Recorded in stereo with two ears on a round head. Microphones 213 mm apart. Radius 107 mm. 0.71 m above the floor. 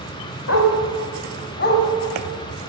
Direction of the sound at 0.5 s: 65° left (ahead or behind).